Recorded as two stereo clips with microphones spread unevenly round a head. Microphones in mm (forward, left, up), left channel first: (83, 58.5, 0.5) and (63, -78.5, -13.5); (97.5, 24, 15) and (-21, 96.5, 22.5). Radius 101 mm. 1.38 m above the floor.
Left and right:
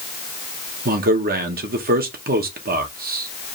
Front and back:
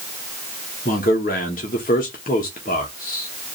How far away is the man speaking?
About 1.1 m.